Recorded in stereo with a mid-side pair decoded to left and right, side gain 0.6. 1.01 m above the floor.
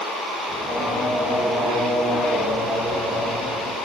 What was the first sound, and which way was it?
Singing, 5° left.